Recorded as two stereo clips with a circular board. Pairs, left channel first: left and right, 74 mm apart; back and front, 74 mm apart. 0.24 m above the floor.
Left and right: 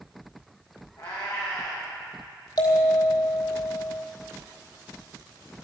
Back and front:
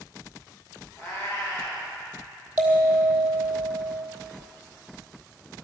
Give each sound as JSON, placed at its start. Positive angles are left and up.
{"t": 1.0, "sound": "a cat meowing", "azimuth_deg": 115, "distance_m": 6.5}
{"t": 2.6, "sound": "a bell", "azimuth_deg": 70, "distance_m": 3.0}